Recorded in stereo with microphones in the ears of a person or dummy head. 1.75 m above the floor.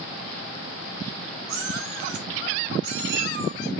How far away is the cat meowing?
About 2.5 m.